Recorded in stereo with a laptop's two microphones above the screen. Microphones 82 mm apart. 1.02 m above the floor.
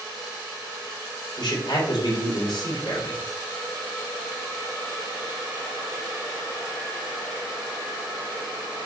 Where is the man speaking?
65° left (ahead or behind), 3.5 m.